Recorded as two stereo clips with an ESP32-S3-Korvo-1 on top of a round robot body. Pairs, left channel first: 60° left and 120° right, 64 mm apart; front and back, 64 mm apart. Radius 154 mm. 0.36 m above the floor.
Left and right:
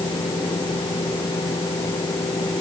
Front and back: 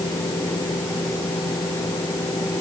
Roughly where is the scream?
No scream in this recording.